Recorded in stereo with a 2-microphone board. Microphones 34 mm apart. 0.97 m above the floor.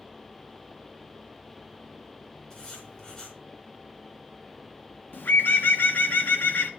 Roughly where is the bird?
Left.